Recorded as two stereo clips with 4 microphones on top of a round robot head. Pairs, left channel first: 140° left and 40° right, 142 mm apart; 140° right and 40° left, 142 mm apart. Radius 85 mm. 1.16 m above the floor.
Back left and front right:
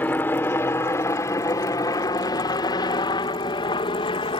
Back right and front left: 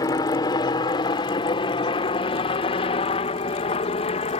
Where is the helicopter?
160° right; by 4.4 s 175° right.